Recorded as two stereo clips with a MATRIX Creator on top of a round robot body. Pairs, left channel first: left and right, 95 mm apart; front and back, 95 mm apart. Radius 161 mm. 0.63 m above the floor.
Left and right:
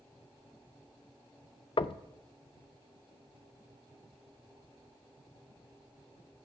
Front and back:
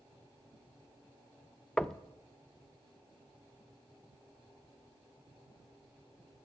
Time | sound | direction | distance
1.8 | knocking | 80° left | 0.6 m